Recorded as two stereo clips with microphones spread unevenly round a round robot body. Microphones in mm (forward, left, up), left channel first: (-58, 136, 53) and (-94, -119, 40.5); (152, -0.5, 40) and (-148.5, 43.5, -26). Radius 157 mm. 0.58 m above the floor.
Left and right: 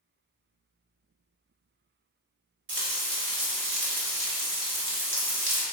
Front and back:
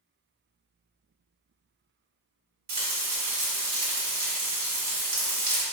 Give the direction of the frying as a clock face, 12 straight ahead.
4 o'clock.